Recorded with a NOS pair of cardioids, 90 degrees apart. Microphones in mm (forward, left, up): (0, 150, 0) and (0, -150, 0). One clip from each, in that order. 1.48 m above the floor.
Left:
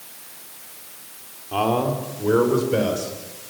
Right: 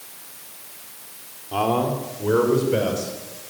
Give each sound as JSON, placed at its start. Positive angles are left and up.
{"t": 1.5, "sound": "a man speaking", "azimuth_deg": 5, "distance_m": 4.5}